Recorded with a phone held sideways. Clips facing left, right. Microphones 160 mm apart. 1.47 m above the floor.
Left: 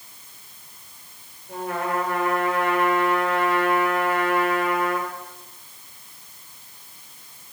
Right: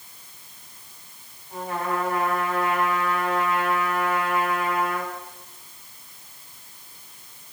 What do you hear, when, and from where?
1.5 s a trumpet: 85° left, 5.5 m